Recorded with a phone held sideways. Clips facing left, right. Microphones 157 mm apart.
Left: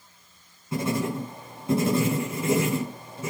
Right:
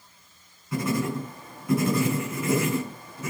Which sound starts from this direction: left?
Writing, at 0.7 s.